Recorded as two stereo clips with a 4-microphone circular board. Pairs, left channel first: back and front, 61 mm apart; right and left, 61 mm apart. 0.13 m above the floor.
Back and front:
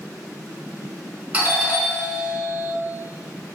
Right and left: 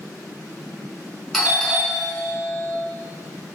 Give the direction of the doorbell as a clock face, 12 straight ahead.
12 o'clock.